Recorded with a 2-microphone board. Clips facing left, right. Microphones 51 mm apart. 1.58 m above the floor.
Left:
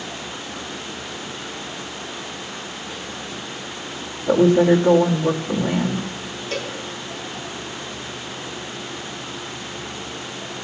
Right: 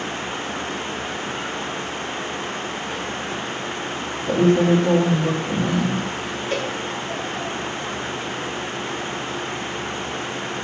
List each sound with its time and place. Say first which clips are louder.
4.3 s a woman speaking: left 2 dB; 20° left (ahead or behind), 1.1 m
6.5 s a cowbell: right 3 dB; 10° right (ahead or behind), 1.2 m